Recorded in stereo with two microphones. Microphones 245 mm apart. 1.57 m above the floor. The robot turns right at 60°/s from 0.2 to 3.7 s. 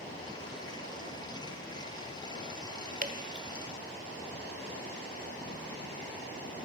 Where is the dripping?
35° right (ahead or behind), 1.5 m; by 3.6 s 25° right (ahead or behind), 1.5 m.